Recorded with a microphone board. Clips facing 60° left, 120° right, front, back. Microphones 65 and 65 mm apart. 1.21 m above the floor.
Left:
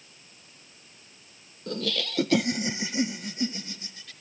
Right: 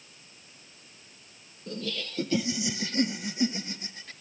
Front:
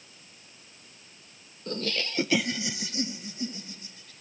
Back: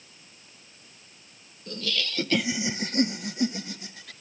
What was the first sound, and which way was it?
Laughter, 45° left.